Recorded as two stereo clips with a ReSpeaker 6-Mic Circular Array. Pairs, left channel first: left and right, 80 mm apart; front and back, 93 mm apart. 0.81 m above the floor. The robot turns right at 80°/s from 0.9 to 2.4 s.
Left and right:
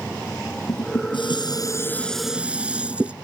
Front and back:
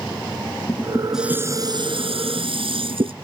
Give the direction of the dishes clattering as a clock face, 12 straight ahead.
9 o'clock.